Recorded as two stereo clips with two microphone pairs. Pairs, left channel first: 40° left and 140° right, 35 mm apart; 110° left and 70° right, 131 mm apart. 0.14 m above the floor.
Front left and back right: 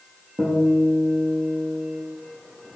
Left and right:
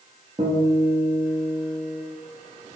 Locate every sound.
0.4 s a guitar: 120° right, 2.5 m